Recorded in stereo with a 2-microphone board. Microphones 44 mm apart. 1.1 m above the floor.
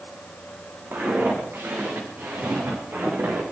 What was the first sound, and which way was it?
Footsteps, 50° right (ahead or behind).